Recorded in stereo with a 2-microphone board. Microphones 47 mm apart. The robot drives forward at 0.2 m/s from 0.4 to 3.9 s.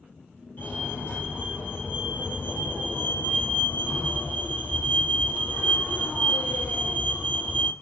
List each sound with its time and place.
0.6 s a fire alarm: 45° left (ahead or behind), 4.5 m